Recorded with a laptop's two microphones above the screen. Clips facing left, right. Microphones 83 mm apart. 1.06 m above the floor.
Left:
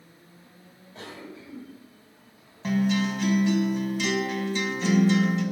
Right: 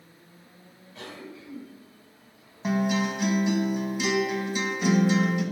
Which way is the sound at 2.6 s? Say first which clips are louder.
Left 1 dB; 15° right (ahead or behind).